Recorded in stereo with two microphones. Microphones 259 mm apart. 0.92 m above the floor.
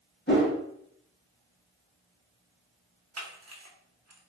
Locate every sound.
0.3 s a whoosh: 40° left (ahead or behind), 1.3 m
3.2 s a camera shutter: 70° right (ahead or behind), 0.7 m